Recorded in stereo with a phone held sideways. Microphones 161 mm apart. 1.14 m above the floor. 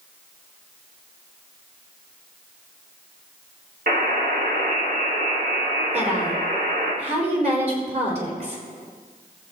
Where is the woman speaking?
45° right (ahead or behind), 4 m.